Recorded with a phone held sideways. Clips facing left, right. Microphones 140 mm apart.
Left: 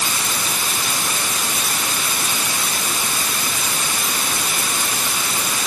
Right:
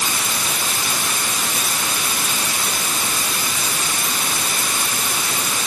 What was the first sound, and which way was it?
Only background noise.